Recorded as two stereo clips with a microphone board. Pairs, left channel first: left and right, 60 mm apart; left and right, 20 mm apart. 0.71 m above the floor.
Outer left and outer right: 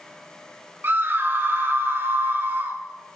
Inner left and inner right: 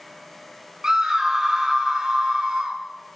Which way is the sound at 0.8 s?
35° right (ahead or behind).